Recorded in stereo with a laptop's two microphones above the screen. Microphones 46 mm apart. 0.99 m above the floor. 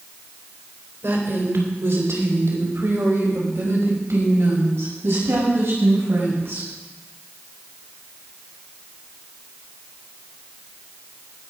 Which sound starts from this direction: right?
A woman speaking, at 1.0 s.